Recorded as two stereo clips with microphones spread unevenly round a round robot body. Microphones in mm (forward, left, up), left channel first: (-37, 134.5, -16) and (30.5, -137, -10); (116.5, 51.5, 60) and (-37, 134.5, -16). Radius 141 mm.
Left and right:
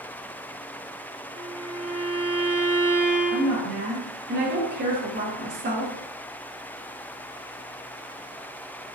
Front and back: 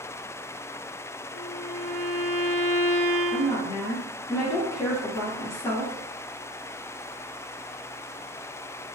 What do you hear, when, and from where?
1.3 s a violin: 105° left, 0.9 m
3.3 s a woman speaking: 120° right, 1.0 m